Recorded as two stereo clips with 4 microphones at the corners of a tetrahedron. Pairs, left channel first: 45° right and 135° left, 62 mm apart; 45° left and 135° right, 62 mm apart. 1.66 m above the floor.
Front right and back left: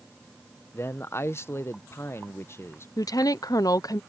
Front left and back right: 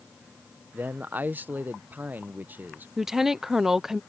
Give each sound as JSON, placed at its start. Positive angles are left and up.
{"t": 0.7, "sound": "a man speaking", "azimuth_deg": -80}
{"t": 3.0, "sound": "a woman speaking", "azimuth_deg": -50}